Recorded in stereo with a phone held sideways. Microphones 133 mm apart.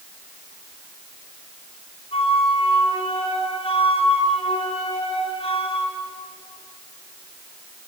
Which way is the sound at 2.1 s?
50° left (ahead or behind).